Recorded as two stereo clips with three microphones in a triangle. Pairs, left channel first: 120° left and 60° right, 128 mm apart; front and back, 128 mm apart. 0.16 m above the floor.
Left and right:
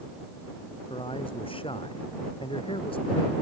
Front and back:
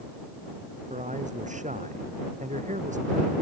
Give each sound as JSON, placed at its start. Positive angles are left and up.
{"t": 0.9, "sound": "a man speaking", "azimuth_deg": 165}